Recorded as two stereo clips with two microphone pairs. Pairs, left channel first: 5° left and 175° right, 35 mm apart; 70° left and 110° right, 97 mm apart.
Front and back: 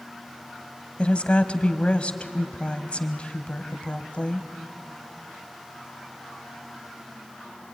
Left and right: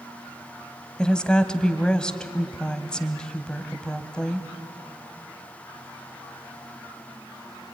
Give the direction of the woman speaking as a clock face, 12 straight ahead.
12 o'clock.